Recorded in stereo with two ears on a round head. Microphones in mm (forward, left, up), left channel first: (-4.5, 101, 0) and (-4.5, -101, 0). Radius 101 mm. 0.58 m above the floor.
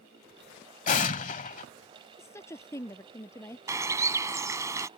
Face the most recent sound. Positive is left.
turn(degrees=-15)  # may be behind; listen again after turning